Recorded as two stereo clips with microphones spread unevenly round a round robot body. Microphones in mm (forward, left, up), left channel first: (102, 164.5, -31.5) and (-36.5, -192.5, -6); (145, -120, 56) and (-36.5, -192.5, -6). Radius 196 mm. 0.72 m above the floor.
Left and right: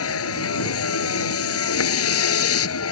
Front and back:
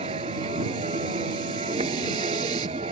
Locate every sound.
0.0 s a vehicle: 125° left